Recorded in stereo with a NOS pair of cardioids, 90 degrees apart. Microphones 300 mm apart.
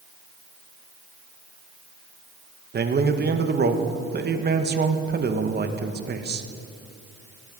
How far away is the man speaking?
About 1.4 m.